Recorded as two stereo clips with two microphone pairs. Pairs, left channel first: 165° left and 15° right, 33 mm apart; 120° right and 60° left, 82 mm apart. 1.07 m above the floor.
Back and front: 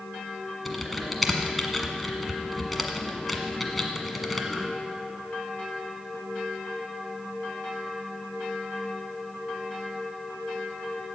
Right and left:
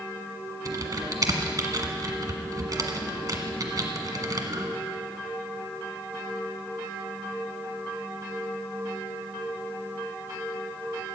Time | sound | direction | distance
0.7 | typing on a keyboard | 80° left | 1.4 m